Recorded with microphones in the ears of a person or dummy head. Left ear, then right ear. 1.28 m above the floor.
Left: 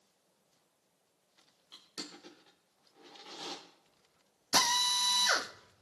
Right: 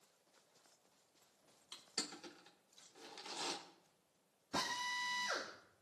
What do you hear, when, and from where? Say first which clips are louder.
1.7 s crushing: even; 45° right (ahead or behind), 3 m
4.5 s a drill: left 12 dB; 75° left (ahead or behind), 1.6 m